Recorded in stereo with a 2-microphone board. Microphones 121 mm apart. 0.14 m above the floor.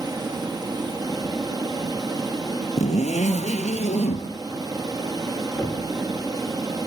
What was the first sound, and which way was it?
Running water, 35° right (ahead or behind).